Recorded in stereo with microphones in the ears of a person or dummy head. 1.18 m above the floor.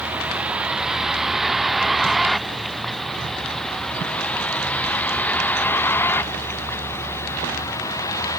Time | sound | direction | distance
0.0 | a vehicle | 5° right (ahead or behind) | ?